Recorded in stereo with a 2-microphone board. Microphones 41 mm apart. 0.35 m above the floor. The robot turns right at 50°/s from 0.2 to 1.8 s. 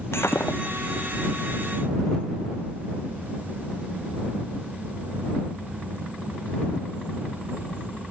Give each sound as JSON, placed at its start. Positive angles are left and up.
{"t": 0.1, "sound": "breaking glass", "side_deg": 75}